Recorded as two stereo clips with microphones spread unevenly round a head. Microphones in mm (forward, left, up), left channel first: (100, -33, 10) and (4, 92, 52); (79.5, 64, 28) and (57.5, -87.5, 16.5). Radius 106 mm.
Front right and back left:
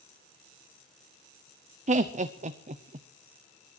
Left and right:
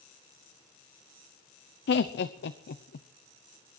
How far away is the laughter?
About 0.8 m.